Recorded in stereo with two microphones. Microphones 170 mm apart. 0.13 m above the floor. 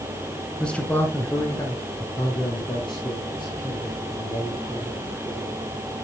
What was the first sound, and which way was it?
A man speaking, 5° left (ahead or behind).